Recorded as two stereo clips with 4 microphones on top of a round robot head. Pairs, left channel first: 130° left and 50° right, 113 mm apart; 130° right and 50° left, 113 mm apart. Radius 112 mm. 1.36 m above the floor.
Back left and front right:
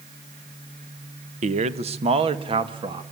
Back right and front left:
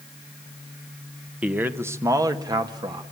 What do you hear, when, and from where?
1.4 s a man speaking: 30° right, 1.2 m; by 3.0 s straight ahead, 2.5 m